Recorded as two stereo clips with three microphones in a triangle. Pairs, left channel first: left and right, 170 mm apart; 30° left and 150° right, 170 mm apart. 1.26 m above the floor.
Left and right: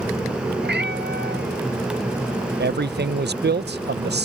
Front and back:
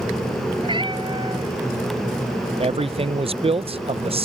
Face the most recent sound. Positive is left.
turn(degrees=-90)